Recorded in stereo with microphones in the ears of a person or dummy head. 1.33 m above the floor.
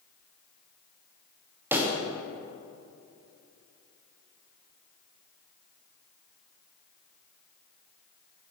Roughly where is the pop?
Centre.